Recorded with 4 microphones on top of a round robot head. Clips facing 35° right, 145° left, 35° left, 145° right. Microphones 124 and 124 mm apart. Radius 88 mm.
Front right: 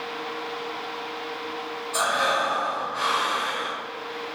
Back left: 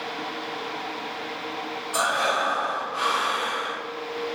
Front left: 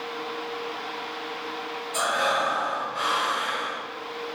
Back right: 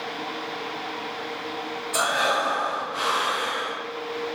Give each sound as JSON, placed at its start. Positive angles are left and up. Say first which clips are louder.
{"t": 1.9, "sound": "breathing", "louder": "even, back right 1 dB", "azimuth_deg": -135, "distance_m": 0.7}